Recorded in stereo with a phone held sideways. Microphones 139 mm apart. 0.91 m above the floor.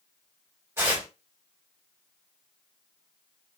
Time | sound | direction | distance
0.8 | tearing paper | 20° right (ahead or behind) | 2.5 m